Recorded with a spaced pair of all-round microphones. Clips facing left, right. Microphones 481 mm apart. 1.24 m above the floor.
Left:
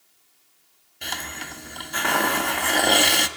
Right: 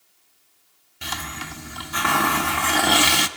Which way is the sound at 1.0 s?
25° right (ahead or behind).